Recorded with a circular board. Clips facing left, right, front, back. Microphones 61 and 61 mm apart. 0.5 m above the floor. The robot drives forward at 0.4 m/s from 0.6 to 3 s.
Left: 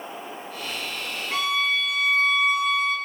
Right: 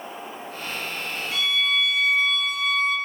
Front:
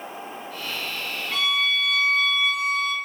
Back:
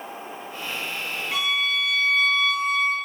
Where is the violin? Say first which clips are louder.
Left 1 dB, front 1 dB; 110° left, 1.3 m; by 3.0 s 140° left, 1.5 m.